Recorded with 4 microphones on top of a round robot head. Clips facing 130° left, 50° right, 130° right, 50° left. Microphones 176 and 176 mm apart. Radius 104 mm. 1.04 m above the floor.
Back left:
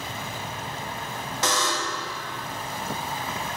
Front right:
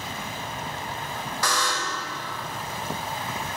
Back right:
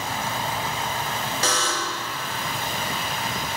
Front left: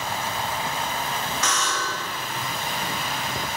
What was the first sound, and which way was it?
A buzzer, 170° right.